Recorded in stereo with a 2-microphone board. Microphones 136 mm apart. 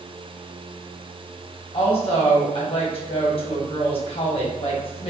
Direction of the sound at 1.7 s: 45° left (ahead or behind).